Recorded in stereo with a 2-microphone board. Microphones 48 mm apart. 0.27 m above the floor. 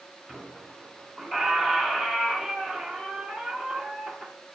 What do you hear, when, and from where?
0.3 s a squeak: 5° left (ahead or behind), 1.6 m